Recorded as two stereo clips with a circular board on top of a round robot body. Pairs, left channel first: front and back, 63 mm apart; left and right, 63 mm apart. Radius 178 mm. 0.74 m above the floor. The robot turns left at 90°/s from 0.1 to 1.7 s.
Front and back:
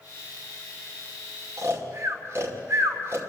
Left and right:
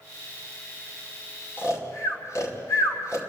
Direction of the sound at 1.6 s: 145° left.